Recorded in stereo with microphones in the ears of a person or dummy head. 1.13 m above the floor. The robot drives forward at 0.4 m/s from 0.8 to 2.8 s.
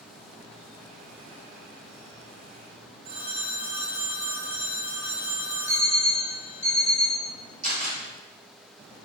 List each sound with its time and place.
3.0 s a phone ringing: 45° right (ahead or behind), 0.6 m
5.7 s an alarm clock: 15° right (ahead or behind), 1.7 m
7.6 s a camera shutter: 45° right (ahead or behind), 1.2 m